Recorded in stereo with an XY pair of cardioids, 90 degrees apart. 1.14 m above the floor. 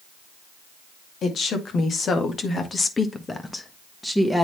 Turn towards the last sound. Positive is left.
turn(degrees=5)